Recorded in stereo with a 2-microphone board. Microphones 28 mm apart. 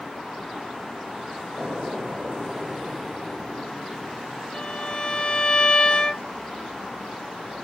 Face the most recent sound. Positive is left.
turn(degrees=35)  # may be behind; listen again after turning